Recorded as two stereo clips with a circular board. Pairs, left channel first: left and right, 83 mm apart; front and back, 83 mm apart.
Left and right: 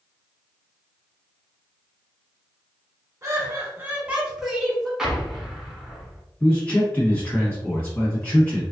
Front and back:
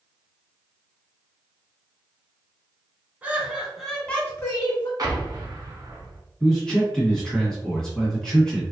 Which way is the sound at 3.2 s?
120° right.